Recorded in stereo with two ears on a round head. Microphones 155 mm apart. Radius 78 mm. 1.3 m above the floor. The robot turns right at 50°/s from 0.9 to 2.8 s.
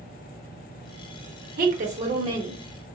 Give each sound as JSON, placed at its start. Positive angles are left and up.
{"t": 1.6, "sound": "a woman speaking", "azimuth_deg": -65, "distance_m": 0.9}